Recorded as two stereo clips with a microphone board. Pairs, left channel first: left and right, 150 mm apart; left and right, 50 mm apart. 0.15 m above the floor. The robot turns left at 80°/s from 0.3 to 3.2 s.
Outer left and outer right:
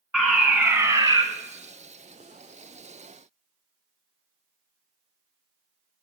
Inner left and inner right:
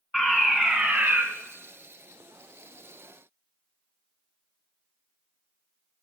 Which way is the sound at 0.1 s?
Centre (ahead or behind).